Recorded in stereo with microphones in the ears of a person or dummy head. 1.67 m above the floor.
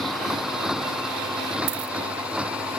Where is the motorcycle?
Centre (ahead or behind); by 2.8 s 5° right (ahead or behind).